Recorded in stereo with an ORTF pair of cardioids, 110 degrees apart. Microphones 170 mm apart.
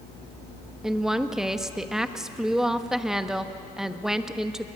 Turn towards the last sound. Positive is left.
turn(degrees=-5)